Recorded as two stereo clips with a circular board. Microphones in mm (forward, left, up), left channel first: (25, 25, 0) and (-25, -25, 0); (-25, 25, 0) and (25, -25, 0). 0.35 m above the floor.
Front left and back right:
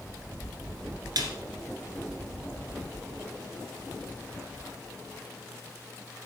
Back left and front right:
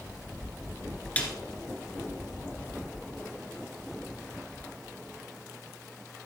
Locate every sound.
1.2 s a snare drum: 155° right, 1.3 m